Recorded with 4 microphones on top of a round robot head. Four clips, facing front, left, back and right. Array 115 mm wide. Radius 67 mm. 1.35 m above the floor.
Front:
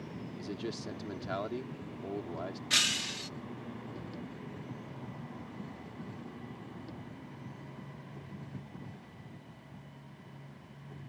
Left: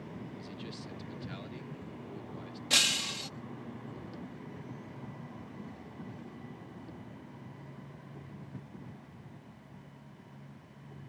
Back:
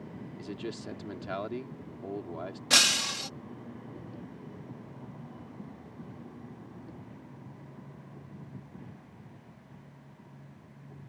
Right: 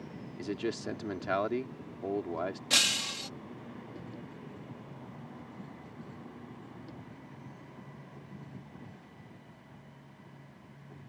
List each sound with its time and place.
0.4 s a man speaking: 90° right
2.7 s breaking glass: straight behind